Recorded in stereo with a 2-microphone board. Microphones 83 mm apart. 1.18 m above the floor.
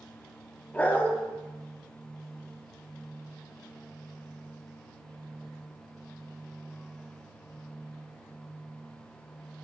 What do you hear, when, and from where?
0.7 s a dog barking: 15° left (ahead or behind), 0.8 m